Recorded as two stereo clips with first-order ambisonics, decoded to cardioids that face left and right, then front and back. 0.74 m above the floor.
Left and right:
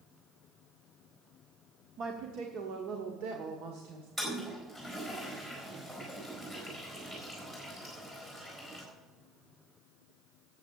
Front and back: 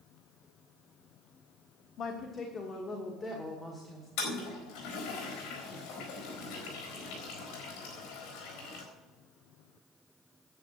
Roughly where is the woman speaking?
Ahead right.